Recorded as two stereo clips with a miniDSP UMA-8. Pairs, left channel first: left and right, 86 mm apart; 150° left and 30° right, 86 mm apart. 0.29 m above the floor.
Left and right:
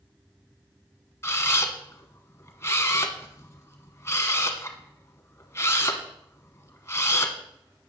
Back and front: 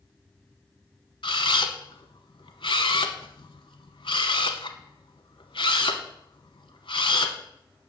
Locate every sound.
1.2 s a camera shutter: 150° left, 0.9 m